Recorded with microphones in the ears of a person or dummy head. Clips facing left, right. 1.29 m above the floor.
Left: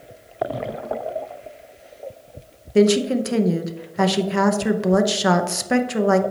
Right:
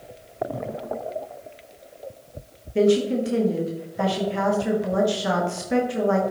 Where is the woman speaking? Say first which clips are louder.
Left 3 dB; 70° left (ahead or behind), 0.8 m.